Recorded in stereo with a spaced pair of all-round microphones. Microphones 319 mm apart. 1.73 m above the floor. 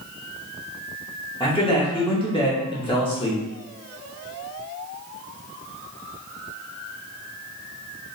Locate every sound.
1.4 s a man speaking: 15° left (ahead or behind), 0.7 m